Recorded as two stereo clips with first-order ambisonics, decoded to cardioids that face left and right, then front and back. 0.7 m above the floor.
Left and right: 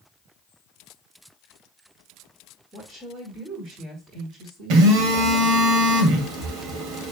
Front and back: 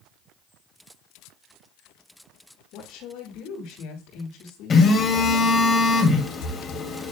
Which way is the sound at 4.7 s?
65° right.